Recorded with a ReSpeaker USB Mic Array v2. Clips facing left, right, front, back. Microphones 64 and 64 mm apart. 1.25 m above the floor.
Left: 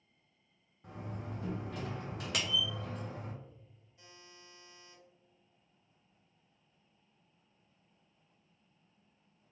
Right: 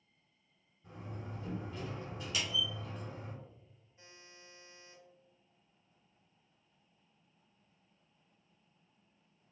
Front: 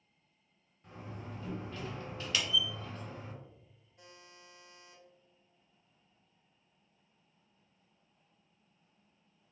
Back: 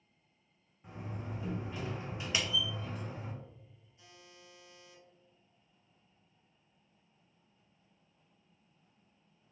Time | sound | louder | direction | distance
0.8 | a door slam | left 3 dB, back 2 dB | 105° left | 0.8 m
2.3 | a clap | left 2 dB, even | 115° left | 0.8 m
4.0 | a buzzer | even, front 2 dB | 30° right | 1.3 m